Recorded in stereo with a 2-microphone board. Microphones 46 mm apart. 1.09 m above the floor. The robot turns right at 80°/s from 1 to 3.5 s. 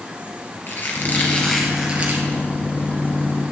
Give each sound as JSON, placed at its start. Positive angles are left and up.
{"t": 0.7, "sound": "a squeak", "azimuth_deg": 130, "distance_m": 2.0}